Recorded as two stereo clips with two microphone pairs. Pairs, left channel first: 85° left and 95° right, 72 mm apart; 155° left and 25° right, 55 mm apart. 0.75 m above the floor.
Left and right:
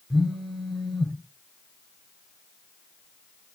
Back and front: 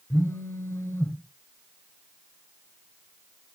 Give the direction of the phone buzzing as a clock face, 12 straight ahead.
6 o'clock.